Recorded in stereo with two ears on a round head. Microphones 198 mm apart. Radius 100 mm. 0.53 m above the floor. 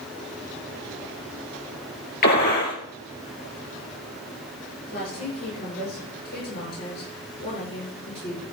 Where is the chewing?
I don't hear chewing.